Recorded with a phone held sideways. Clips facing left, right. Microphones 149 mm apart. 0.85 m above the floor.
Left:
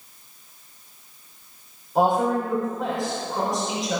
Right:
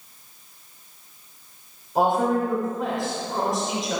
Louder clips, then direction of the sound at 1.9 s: Even; centre (ahead or behind).